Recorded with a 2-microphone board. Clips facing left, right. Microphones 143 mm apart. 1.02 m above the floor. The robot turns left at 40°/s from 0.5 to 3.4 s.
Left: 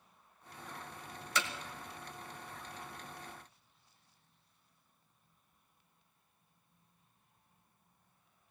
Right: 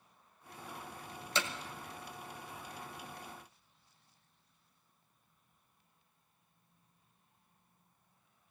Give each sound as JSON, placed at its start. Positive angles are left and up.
{"t": 1.4, "sound": "hammering", "side_deg": -25, "distance_m": 1.6}